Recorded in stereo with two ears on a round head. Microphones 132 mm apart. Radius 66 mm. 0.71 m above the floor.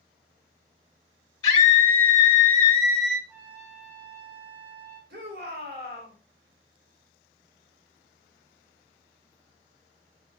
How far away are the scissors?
No scissors in this recording.